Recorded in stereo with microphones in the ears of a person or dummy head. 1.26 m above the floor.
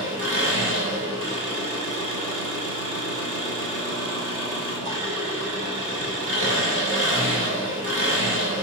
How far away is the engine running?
About 7 m.